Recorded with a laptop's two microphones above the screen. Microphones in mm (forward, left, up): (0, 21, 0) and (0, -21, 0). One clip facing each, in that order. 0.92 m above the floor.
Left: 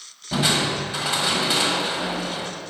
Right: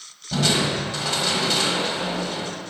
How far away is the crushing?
About 1.3 m.